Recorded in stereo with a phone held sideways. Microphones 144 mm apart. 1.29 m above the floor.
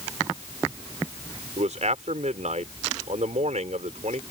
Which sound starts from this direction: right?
A man speaking, at 1.6 s.